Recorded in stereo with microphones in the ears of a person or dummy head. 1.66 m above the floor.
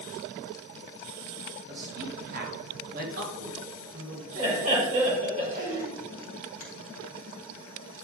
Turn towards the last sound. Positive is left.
turn(degrees=20)  # may be behind; listen again after turning